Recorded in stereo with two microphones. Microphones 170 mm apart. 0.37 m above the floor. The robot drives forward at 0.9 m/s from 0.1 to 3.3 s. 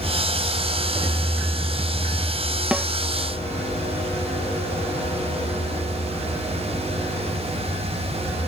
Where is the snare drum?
5° right (ahead or behind).